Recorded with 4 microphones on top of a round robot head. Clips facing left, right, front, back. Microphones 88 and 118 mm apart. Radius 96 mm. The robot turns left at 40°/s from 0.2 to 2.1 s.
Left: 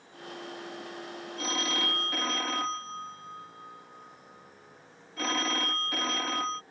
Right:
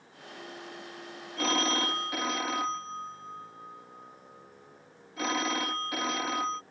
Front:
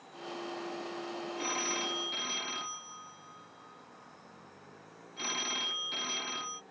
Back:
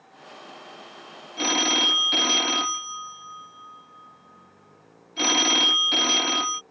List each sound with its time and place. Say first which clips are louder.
1.4 s a phone ringing: right 4 dB, back 14 dB; 145° right; by 6.6 s 175° right